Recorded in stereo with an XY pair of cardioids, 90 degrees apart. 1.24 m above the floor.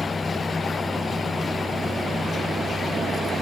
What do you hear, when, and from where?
0.0 s a fan: 25° left